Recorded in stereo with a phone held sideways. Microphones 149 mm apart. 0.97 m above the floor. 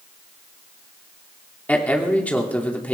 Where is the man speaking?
10° left (ahead or behind), 2.5 m.